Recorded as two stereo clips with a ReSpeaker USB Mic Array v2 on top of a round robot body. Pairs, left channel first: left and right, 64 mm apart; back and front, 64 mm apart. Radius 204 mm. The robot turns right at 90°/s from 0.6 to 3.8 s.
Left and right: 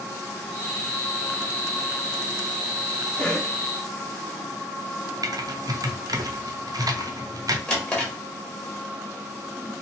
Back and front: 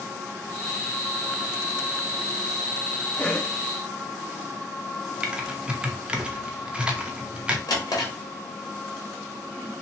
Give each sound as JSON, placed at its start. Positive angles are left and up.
{"t": 3.2, "sound": "a cough", "azimuth_deg": 135, "distance_m": 0.7}
{"t": 5.2, "sound": "typing on a keyboard", "azimuth_deg": -70, "distance_m": 0.7}
{"t": 7.7, "sound": "a drawer", "azimuth_deg": 165, "distance_m": 0.9}